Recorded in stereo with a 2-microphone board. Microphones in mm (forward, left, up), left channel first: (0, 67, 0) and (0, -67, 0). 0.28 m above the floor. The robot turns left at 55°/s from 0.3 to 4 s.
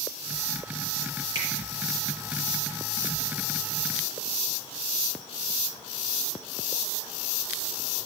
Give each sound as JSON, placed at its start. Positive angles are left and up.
{"t": 1.4, "sound": "a finger snap", "side_deg": -35, "distance_m": 6.0}